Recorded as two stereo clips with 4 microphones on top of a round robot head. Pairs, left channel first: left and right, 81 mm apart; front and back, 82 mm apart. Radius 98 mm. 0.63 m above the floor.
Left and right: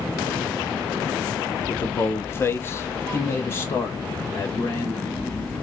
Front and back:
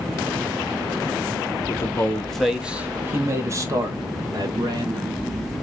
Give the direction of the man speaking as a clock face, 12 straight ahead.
11 o'clock.